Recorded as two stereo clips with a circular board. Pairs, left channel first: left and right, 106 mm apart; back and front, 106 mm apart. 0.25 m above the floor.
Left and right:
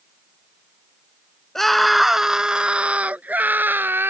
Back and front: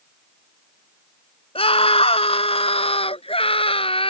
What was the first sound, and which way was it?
A scream, 175° left.